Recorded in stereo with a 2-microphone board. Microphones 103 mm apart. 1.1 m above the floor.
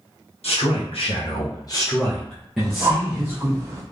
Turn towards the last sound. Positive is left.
turn(degrees=-25)  # may be behind; listen again after turning